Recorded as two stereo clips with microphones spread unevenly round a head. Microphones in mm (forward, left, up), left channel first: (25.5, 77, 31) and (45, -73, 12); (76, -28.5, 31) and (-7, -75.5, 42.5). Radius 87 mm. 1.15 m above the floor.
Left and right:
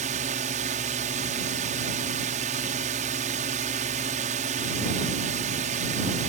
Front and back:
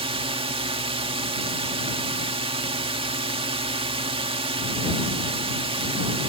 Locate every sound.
0.0 s a drone: 130° right